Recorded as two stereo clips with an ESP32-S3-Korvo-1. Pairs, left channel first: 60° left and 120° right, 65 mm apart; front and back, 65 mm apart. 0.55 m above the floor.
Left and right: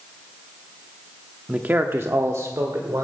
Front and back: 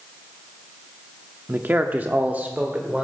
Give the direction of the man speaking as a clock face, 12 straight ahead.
6 o'clock.